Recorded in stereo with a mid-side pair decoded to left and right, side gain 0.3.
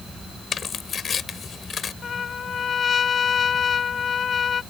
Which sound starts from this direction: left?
Tearing paper, at 0.5 s.